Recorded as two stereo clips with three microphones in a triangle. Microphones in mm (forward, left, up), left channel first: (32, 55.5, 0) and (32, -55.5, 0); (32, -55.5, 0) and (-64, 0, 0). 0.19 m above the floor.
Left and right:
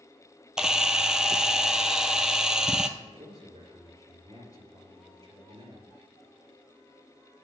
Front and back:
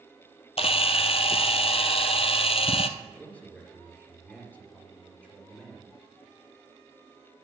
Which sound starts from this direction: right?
A man speaking, at 3.0 s.